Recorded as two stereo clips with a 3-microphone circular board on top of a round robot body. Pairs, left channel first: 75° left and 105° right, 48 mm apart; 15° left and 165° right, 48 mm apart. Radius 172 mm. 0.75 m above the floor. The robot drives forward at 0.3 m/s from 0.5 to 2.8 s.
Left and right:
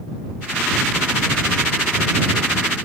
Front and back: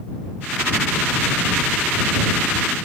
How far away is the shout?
No shout in this recording.